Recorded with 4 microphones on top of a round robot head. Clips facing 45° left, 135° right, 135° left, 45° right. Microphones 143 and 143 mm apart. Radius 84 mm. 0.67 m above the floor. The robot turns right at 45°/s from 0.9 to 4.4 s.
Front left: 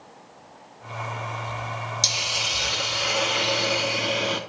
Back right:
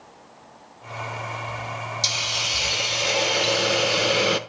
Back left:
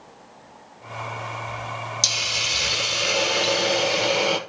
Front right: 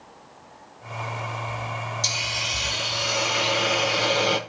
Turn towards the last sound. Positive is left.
turn(degrees=-140)